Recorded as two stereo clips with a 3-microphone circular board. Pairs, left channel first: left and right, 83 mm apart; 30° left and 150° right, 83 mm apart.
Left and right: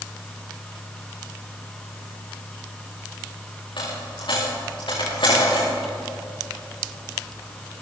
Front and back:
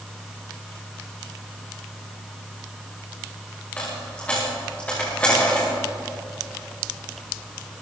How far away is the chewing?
No chewing in this recording.